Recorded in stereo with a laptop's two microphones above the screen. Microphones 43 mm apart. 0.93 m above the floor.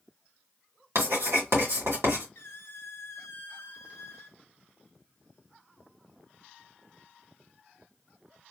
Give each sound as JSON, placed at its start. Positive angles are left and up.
{"t": 0.9, "sound": "writing", "side_deg": -80, "distance_m": 2.0}
{"t": 2.4, "sound": "a squeak", "side_deg": 65, "distance_m": 0.5}